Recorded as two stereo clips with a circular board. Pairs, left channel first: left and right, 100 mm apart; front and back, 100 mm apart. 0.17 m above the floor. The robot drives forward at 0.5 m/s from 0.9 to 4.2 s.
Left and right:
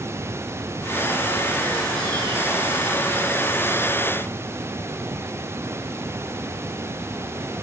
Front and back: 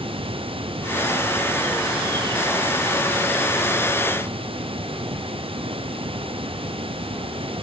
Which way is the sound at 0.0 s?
155° right.